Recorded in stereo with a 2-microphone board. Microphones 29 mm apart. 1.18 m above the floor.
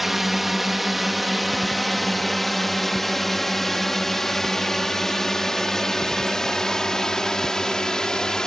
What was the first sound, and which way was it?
A drone, 5° right (ahead or behind).